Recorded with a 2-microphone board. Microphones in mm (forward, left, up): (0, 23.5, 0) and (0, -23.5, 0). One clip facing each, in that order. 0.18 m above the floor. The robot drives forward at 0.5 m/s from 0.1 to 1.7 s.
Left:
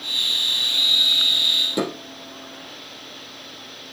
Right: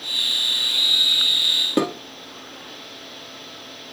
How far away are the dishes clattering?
About 3.5 m.